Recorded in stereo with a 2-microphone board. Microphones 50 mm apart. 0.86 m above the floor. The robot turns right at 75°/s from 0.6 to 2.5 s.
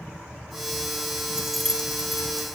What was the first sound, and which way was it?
Keys jangling, 15° right (ahead or behind).